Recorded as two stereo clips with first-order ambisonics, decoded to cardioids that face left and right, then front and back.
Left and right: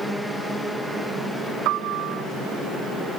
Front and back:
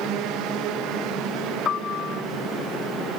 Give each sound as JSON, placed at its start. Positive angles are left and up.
{"t": 1.6, "sound": "a piano", "azimuth_deg": -60}